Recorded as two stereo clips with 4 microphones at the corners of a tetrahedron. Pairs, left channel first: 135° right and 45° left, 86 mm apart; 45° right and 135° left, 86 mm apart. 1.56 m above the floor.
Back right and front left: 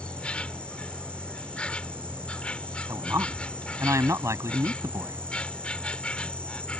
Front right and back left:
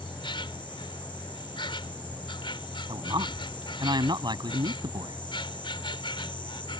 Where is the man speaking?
100° left.